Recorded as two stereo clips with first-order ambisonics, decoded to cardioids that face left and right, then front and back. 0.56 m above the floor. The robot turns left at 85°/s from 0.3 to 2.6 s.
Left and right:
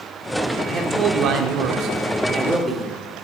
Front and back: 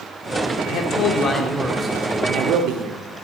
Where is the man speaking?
10° right, 1.2 m; by 3.0 s 175° right, 1.2 m.